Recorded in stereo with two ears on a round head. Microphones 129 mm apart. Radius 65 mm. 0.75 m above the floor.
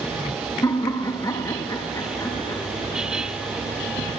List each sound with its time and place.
0.6 s laughter: 20° left (ahead or behind), 1.2 m